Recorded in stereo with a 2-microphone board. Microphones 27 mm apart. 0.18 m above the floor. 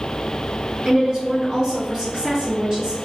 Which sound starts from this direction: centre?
A woman speaking, at 0.8 s.